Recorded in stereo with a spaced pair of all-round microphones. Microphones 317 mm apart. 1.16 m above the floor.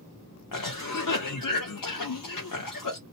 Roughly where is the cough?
Left.